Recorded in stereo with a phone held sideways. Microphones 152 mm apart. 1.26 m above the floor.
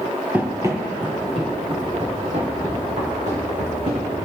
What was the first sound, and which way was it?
Running footsteps, 10° right (ahead or behind).